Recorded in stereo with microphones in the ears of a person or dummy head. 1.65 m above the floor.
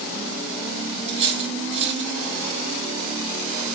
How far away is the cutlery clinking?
About 3.5 m.